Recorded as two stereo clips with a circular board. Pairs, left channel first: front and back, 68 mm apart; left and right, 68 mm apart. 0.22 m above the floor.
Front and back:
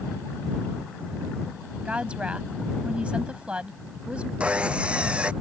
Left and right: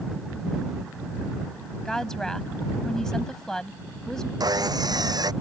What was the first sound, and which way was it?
A woman speaking, 155° left.